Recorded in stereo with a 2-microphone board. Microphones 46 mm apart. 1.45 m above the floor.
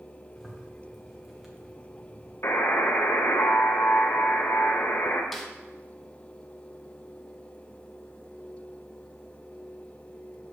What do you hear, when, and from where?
0.4 s a zipper: 5° right (ahead or behind), 1.3 m
2.4 s a buzzer: 65° left (ahead or behind), 1.1 m
5.3 s a snare drum: centre (ahead or behind), 0.8 m